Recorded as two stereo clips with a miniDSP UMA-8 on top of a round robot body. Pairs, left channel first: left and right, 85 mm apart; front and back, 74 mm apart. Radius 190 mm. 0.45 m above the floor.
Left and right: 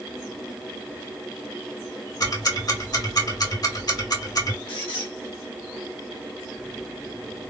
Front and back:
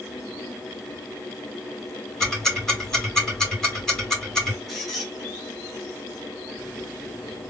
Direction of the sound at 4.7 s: 90° left.